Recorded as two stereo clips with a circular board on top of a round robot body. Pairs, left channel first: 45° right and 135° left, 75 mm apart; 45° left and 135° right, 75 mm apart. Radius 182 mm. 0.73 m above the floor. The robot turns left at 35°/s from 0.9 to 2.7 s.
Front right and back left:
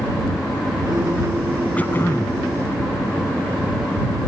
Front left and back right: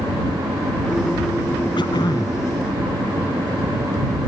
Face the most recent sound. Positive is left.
turn(degrees=-5)